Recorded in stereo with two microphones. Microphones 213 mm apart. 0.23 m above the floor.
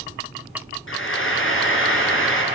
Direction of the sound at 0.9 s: 70° left (ahead or behind).